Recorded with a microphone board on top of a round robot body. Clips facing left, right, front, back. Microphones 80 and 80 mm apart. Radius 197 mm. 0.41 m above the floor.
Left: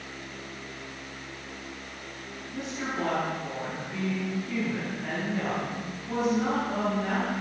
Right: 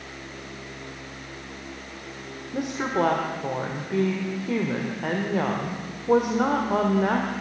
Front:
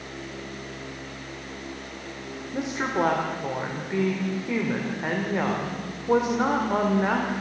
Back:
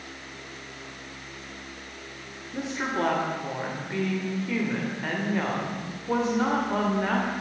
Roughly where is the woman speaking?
Right.